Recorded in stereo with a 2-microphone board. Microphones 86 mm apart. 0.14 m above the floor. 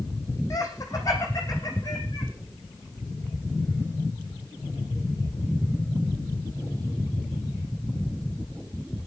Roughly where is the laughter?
Left.